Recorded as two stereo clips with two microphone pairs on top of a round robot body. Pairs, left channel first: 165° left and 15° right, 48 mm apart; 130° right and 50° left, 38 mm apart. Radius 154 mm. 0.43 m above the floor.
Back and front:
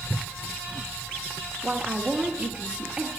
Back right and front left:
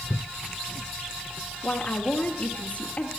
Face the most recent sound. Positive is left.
turn(degrees=-85)